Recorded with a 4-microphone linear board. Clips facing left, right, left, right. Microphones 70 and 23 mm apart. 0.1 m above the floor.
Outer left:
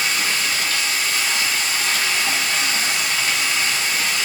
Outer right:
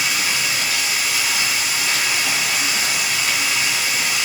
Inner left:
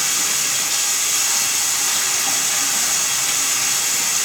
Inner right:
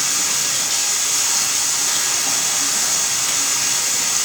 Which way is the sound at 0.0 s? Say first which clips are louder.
Even, even; 10° right (ahead or behind).